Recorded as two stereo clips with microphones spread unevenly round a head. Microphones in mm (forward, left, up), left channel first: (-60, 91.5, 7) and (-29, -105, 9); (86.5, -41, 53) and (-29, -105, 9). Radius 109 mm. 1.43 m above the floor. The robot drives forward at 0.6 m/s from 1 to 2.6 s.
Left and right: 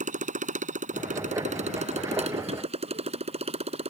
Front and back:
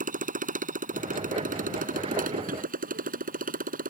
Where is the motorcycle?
130° right; by 3.9 s 140° right.